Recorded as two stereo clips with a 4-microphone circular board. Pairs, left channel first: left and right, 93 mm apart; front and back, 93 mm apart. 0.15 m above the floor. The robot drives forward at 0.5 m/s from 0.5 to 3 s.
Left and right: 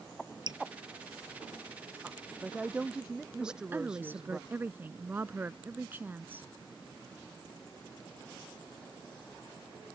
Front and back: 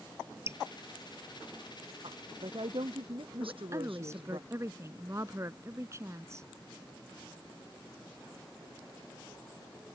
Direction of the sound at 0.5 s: 120° right.